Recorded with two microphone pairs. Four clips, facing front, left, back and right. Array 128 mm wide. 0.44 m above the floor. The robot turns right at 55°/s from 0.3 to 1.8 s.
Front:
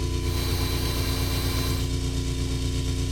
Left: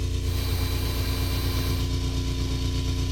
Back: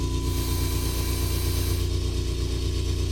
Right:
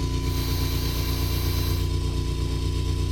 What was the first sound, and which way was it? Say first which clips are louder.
An engine running: right 4 dB, even; 35° right.